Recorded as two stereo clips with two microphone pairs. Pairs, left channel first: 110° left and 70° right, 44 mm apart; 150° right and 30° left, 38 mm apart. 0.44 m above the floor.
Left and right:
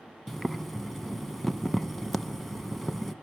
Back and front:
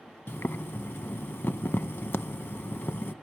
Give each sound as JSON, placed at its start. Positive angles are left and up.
{"t": 0.3, "sound": "boiling", "azimuth_deg": -155, "distance_m": 0.6}